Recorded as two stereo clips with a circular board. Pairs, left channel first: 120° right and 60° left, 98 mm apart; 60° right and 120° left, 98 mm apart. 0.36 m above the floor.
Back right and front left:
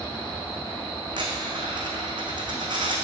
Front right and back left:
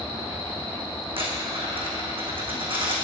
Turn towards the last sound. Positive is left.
turn(degrees=95)